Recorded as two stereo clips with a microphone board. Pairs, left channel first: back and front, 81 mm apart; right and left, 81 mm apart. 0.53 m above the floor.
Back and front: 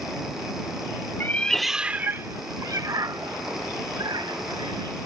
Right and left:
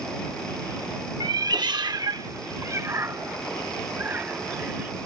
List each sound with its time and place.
1.2 s a cat meowing: 120° left; by 4.9 s 20° left